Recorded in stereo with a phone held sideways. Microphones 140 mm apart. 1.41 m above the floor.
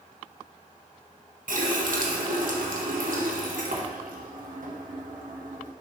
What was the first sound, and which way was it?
A running tap, 75° right (ahead or behind).